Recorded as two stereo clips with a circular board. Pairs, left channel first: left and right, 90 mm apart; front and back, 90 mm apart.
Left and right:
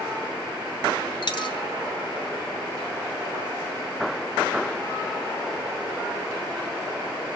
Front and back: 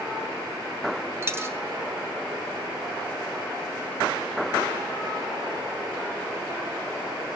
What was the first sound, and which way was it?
A dropped coin, 120° left.